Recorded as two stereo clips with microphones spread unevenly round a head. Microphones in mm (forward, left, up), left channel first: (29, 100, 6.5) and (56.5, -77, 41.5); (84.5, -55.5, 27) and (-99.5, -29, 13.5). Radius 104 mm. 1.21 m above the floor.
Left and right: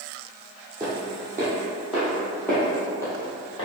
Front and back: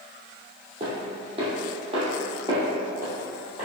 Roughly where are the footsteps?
Behind right.